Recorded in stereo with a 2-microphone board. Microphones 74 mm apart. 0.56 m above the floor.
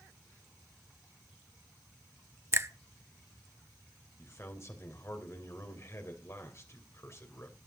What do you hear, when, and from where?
2.5 s a finger snap: 35° right (ahead or behind), 0.9 m
4.2 s a man speaking: 40° left (ahead or behind), 3 m